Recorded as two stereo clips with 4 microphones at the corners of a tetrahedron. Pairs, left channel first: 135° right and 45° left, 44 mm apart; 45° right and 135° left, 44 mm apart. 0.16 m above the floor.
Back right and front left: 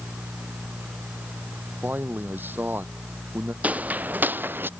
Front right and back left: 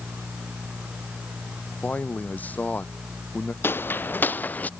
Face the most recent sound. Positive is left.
turn(degrees=10)